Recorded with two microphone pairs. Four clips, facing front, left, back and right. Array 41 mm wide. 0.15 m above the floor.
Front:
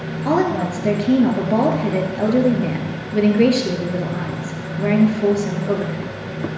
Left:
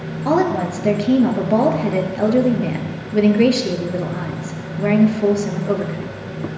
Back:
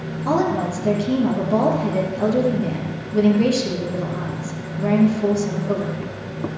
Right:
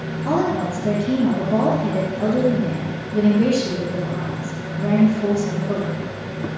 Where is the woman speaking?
55° left, 3 m.